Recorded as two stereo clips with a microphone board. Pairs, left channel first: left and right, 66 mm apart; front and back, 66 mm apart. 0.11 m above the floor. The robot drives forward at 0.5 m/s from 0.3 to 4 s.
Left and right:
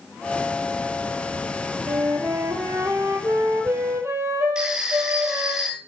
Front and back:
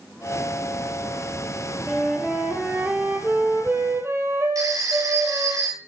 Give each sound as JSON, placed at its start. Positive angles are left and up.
{"t": 1.9, "sound": "a flute", "azimuth_deg": -95, "distance_m": 1.3}
{"t": 4.5, "sound": "a phone ringing", "azimuth_deg": -165, "distance_m": 1.7}